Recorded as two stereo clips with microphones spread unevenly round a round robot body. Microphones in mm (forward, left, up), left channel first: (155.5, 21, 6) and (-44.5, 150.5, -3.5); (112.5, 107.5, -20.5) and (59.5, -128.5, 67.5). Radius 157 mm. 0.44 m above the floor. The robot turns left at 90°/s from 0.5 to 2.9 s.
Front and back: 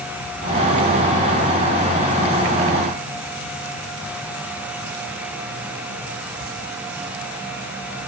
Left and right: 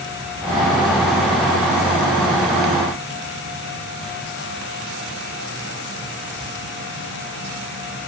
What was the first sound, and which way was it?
Only background noise.